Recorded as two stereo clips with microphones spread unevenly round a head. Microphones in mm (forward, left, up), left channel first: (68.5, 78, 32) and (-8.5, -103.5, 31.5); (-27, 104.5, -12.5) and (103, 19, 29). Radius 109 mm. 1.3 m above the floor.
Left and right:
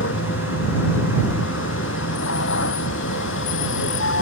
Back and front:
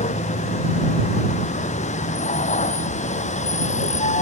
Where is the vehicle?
105° left.